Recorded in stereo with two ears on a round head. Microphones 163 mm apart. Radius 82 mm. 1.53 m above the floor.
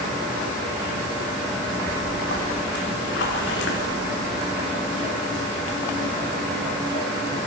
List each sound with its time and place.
1.9 s a splash: 65° left (ahead or behind), 3 m